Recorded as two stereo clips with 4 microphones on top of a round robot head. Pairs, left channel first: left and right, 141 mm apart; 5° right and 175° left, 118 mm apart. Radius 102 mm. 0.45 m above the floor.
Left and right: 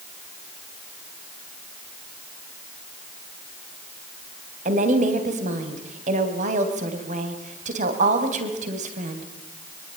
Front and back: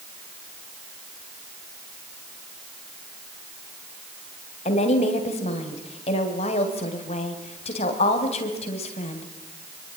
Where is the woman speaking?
50° right, 3 m.